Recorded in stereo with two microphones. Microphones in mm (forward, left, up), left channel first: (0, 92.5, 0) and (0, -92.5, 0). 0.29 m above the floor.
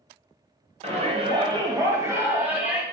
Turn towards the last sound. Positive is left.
turn(degrees=-5)  # may be behind; listen again after turning